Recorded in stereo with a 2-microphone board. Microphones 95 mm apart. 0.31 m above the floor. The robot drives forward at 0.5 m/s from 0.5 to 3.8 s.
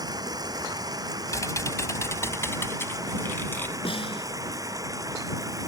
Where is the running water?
40° right (ahead or behind); by 5.7 s 35° right (ahead or behind).